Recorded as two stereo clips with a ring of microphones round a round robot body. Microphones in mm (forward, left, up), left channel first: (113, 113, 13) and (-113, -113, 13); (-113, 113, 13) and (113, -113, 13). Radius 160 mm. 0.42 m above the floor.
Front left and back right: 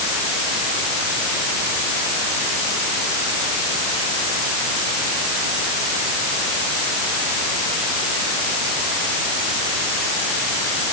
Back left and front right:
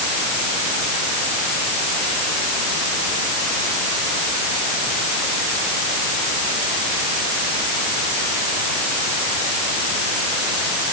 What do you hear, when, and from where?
Only background noise.